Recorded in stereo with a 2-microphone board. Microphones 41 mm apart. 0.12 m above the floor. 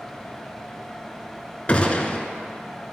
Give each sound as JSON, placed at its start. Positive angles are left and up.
{"t": 1.7, "sound": "a gunshot", "side_deg": 30, "distance_m": 0.5}